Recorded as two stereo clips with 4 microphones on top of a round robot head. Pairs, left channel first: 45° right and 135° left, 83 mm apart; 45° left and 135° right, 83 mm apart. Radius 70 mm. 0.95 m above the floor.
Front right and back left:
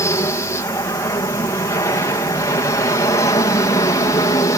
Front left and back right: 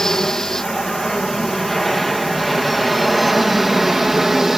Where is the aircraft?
35° right; by 4.6 s 50° right.